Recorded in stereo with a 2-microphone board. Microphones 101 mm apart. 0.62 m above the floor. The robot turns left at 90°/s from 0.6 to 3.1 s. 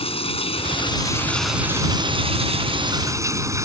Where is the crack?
No crack in this recording.